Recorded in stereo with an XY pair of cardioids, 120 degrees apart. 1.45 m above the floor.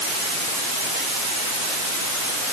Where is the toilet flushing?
I don't hear a toilet flushing.